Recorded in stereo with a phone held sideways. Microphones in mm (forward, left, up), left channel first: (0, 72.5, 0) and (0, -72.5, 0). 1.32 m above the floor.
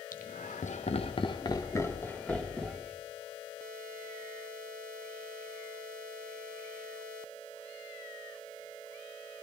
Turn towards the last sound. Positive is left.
turn(degrees=0)  # may be behind; listen again after turning